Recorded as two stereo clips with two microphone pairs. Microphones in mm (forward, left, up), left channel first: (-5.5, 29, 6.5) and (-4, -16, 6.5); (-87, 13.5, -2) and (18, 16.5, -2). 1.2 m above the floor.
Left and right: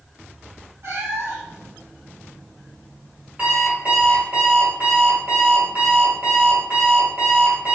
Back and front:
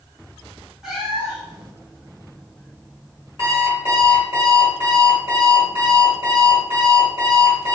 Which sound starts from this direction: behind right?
An alarm clock, at 3.4 s.